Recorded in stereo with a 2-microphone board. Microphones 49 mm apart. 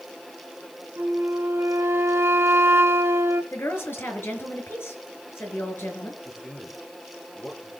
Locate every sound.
1.0 s a flute: 60° right (ahead or behind), 1.8 m
3.5 s a woman speaking: 55° left (ahead or behind), 5 m
6.2 s a man speaking: 20° left (ahead or behind), 6.5 m